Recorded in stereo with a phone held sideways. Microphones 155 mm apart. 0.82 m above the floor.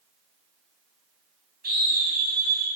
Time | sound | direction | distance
1.6 | a scream | 85° right | 4.5 m